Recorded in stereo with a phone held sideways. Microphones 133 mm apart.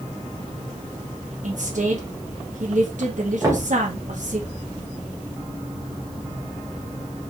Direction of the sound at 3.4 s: 25° right (ahead or behind).